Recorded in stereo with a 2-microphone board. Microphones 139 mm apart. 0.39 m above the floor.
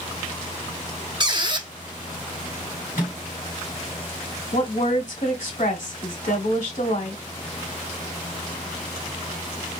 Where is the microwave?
65° left (ahead or behind), 3 m.